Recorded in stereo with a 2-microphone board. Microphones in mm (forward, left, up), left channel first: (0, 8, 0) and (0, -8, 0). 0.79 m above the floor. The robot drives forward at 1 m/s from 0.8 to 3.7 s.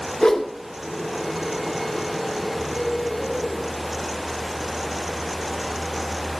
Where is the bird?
40° left (ahead or behind), 4 m; by 3.6 s 50° left (ahead or behind), 3.5 m.